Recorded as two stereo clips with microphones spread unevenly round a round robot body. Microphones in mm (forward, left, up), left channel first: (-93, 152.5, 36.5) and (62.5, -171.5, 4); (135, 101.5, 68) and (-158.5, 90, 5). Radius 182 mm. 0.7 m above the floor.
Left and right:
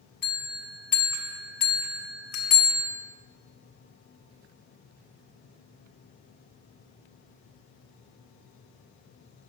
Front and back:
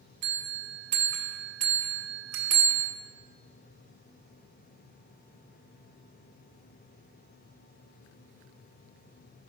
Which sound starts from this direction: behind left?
A bell, at 0.2 s.